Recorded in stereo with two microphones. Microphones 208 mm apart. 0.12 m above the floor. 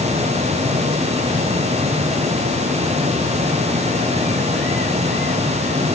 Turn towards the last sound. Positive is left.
No sound to turn to.